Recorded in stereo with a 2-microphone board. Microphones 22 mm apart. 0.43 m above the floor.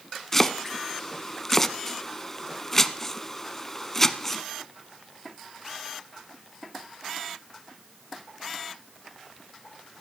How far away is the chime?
No chime in this recording.